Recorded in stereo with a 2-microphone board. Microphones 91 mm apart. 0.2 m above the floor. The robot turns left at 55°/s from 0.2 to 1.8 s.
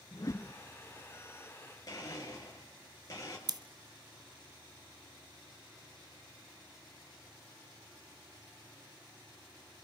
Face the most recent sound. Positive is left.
turn(degrees=-50)  # may be behind; listen again after turning